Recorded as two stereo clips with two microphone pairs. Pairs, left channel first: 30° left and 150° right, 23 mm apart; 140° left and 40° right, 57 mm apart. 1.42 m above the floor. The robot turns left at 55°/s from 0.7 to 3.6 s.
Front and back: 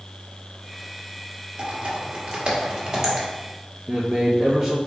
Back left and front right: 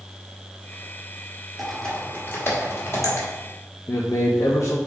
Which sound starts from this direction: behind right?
Typing on a keyboard, at 1.6 s.